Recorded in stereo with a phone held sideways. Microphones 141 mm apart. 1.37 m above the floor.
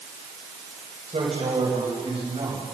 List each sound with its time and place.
1.1 s a man speaking: 45° right (ahead or behind), 6 m; by 2.6 s 40° right (ahead or behind), 7 m